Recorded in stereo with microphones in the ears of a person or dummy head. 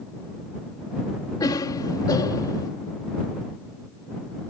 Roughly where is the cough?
Left.